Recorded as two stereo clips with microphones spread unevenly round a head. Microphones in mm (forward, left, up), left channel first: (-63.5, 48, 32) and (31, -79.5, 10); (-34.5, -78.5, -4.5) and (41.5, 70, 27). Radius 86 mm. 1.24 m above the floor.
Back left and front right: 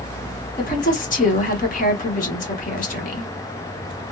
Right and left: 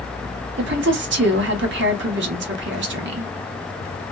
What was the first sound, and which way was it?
A woman speaking, 85° left.